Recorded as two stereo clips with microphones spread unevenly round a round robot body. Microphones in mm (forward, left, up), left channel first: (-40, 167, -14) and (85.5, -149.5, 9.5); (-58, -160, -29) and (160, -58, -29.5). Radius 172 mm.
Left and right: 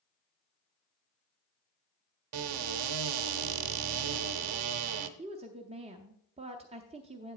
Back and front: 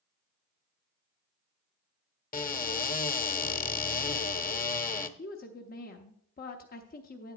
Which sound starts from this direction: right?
A cupboard door, at 2.3 s.